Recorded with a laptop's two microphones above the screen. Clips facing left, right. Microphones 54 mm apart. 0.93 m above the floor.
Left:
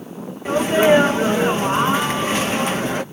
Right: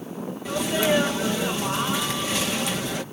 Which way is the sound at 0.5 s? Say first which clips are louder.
Left 9 dB; 35° left (ahead or behind).